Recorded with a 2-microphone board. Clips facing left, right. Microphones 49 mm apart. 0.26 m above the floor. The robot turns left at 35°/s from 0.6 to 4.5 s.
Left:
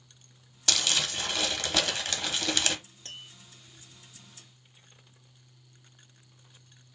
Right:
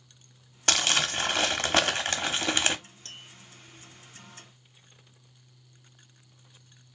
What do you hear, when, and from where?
0.7 s crumpling: 70° right, 0.8 m; by 2.8 s 145° right, 0.8 m
3.0 s tapping: 25° left (ahead or behind), 1.9 m; by 3.3 s 35° left (ahead or behind), 1.9 m